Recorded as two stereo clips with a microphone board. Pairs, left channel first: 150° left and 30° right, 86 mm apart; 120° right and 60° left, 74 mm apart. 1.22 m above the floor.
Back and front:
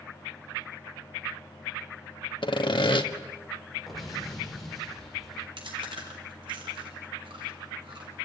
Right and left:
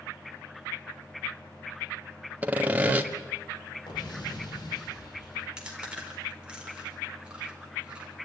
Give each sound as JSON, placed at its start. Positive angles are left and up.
{"t": 2.4, "sound": "sawing", "azimuth_deg": 130, "distance_m": 1.3}
{"t": 3.9, "sound": "an explosion", "azimuth_deg": -120, "distance_m": 5.0}
{"t": 5.6, "sound": "chewing", "azimuth_deg": -15, "distance_m": 4.5}